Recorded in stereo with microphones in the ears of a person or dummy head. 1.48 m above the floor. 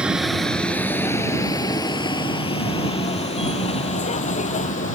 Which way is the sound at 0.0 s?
10° right (ahead or behind).